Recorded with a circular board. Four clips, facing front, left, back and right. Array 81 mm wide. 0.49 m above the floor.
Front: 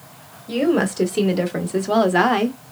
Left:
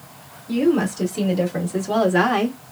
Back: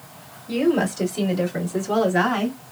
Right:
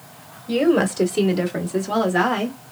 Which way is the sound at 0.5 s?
50° right.